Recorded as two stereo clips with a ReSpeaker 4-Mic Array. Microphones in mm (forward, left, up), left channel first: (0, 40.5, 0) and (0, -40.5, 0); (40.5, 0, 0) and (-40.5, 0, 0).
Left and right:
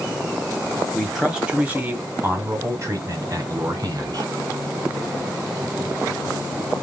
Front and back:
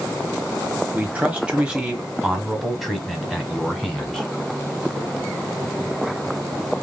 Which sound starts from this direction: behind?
A man speaking, at 0.9 s.